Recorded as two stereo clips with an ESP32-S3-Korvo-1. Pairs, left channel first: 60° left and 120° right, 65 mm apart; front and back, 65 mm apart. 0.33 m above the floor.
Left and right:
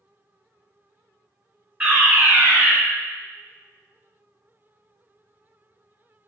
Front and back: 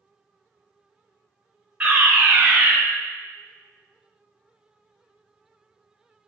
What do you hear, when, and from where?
1.8 s a fire alarm: 165° right, 1.8 m